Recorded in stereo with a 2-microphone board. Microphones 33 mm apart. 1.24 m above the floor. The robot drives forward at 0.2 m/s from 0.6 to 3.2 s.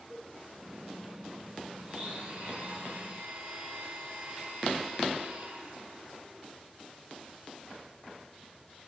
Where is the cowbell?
30° right (ahead or behind), 4 m.